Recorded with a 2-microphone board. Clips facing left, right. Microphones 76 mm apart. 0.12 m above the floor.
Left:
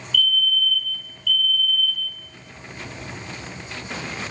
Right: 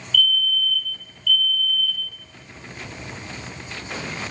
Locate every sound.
0.1 s a fire alarm: 55° right (ahead or behind), 4.5 m